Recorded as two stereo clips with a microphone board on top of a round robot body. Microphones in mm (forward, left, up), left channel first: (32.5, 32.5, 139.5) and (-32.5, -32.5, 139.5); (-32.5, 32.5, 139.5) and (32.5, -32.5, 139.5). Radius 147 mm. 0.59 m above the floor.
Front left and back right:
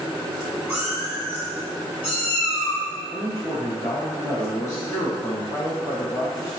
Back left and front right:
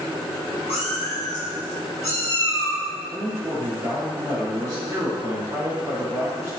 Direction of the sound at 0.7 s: 155° left.